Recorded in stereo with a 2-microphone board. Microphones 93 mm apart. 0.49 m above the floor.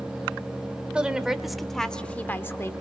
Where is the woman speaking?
10° right (ahead or behind), 1.7 m; by 2.7 s 30° left (ahead or behind), 1.2 m.